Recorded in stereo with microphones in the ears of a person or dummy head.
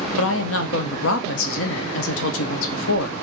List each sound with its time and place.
0.2 s a woman speaking: 80° left, 0.7 m